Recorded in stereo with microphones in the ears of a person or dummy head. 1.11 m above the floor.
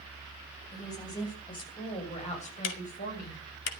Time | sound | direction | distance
0.7 | a woman speaking | 20° left (ahead or behind) | 7 m
2.6 | ticking | 65° left (ahead or behind) | 2.0 m